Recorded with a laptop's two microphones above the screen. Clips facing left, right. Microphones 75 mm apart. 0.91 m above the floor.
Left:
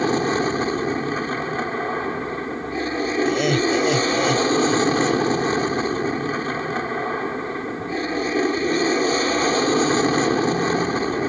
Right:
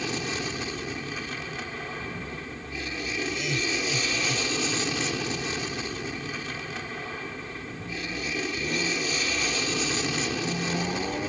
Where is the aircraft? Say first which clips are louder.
Left 12 dB; 45° left (ahead or behind).